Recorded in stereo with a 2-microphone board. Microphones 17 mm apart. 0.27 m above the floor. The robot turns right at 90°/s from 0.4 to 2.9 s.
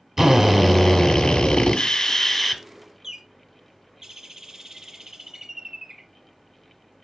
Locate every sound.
0.2 s a drill: 20° right, 0.8 m; by 2.6 s straight behind, 0.8 m
3.0 s a bird: 35° right (ahead or behind), 0.5 m